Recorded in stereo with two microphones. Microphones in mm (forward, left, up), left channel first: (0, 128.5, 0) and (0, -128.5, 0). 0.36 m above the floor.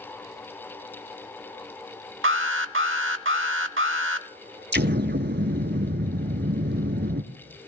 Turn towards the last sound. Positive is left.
turn(degrees=-45)  # may be behind; listen again after turning